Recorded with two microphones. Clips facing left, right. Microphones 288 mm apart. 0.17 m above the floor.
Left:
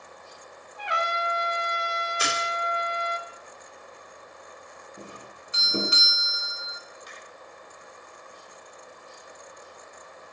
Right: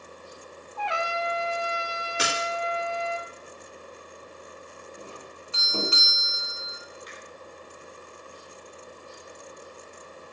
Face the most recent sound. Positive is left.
turn(degrees=50)  # may be behind; listen again after turning